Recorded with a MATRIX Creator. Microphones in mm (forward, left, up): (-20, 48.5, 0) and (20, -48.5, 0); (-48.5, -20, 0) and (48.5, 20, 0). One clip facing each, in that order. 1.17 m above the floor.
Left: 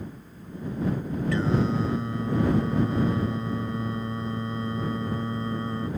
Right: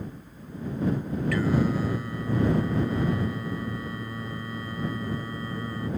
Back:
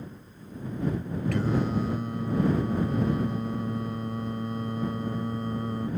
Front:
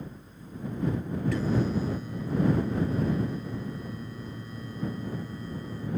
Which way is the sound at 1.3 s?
175° left.